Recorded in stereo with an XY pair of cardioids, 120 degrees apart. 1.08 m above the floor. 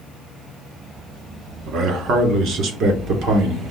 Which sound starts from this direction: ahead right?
A man speaking, at 1.7 s.